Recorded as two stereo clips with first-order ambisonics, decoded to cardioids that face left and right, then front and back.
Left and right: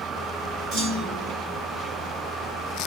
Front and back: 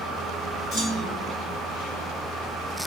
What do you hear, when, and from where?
0.7 s a clunk: 60° right, 1.7 m